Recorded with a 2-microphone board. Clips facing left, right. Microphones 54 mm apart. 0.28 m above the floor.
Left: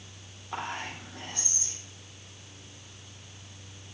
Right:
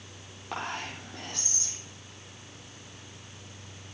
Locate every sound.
0.5 s whispering: 80° right, 6 m